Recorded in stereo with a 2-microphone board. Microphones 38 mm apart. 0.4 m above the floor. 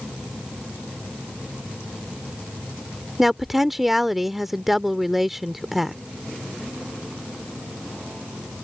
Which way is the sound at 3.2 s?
5° right (ahead or behind).